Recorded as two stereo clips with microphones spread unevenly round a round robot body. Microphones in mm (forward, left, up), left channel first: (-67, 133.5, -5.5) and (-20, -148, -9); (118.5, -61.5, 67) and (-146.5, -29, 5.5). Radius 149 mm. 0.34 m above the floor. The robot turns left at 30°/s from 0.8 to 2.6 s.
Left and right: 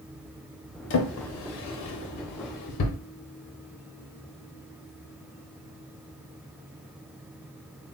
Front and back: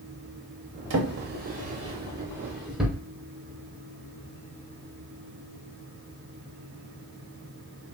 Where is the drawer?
145° left, 0.6 m; by 3.0 s 95° left, 0.6 m.